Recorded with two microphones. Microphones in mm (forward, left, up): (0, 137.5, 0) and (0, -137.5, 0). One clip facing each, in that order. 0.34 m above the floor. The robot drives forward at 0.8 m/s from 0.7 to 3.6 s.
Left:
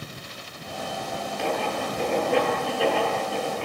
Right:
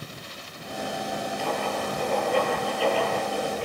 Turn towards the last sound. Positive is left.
turn(degrees=75)  # may be behind; listen again after turning